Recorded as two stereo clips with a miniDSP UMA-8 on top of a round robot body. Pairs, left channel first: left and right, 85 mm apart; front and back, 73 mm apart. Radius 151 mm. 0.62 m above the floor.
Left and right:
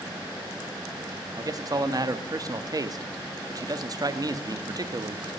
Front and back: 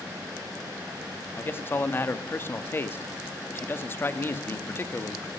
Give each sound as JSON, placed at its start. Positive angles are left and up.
{"t": 1.4, "sound": "a man speaking", "azimuth_deg": -55, "distance_m": 1.2}